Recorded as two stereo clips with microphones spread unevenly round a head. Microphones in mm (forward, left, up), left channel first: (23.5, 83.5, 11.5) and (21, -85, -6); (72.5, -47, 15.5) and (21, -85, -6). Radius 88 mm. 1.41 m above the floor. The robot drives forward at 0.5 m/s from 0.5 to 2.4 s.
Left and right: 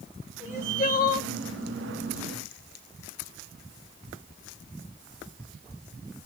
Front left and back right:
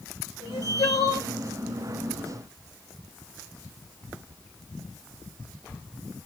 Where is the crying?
40° left, 1.2 m; by 1.3 s 55° left, 0.9 m.